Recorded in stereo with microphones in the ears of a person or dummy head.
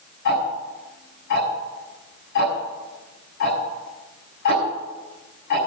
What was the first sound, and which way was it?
Ticking, 60° left (ahead or behind).